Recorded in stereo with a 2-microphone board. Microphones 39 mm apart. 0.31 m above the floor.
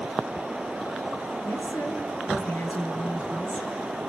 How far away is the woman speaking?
About 5 m.